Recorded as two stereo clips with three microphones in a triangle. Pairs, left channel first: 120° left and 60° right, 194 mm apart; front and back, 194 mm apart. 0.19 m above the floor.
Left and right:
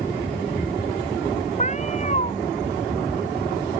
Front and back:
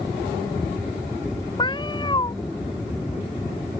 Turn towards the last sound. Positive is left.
turn(degrees=65)